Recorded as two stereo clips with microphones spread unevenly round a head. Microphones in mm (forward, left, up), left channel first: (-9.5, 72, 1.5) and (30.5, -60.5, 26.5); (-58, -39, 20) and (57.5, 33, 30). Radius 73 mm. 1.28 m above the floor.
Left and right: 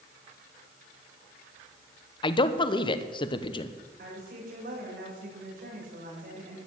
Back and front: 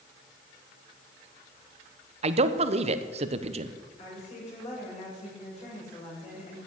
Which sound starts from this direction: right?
A woman speaking, at 4.0 s.